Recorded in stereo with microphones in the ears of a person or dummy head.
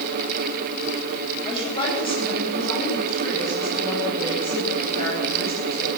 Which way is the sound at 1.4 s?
30° left (ahead or behind).